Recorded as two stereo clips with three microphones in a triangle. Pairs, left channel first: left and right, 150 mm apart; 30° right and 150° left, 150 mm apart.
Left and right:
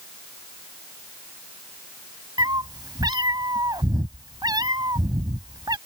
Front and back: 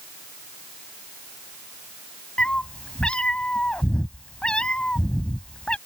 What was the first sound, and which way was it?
A cat meowing, 105° right.